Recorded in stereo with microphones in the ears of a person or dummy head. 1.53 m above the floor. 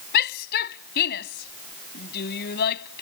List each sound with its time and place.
0.1 s a shout: 55° left (ahead or behind)